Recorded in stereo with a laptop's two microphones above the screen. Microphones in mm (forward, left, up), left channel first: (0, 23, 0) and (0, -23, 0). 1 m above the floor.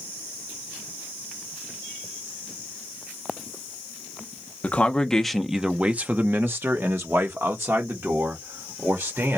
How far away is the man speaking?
About 0.7 m.